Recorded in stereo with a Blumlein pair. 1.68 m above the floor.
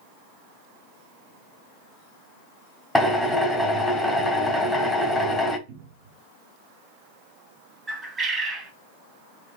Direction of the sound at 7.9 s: 15° right.